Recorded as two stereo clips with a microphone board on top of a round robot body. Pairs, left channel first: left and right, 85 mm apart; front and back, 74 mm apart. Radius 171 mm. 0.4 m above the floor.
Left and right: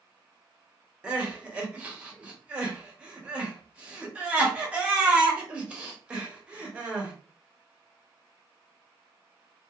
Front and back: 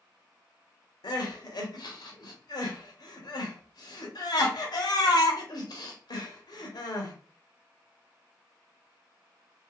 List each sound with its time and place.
1.0 s crying: 15° right, 0.8 m